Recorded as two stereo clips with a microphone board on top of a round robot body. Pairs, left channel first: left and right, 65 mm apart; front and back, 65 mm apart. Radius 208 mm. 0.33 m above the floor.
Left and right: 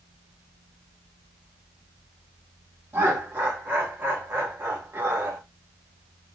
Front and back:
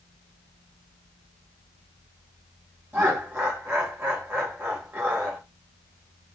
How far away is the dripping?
No dripping in this recording.